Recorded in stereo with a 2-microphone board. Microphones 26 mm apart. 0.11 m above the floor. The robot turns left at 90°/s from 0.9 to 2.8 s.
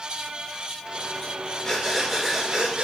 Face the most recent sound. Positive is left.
turn(degrees=-70)